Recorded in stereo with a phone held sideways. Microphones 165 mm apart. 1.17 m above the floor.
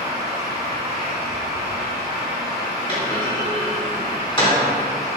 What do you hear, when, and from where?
0.0 s a fan: 20° right (ahead or behind), 1.0 m
2.9 s a clunk: 30° left (ahead or behind), 1.5 m